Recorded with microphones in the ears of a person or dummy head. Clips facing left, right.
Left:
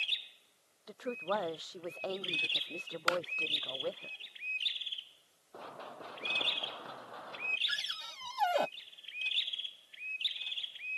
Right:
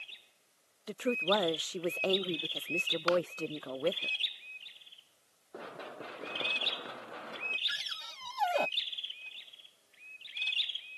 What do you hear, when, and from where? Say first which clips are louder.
0.9 s a woman speaking: right 6 dB; 35° right (ahead or behind)
3.1 s a clap: right 6 dB; 30° left (ahead or behind)
5.5 s running footsteps: right 3 dB; 25° right (ahead or behind); by 7.6 s 35° right (ahead or behind)
7.7 s a cupboard door: left 1 dB; 5° left (ahead or behind)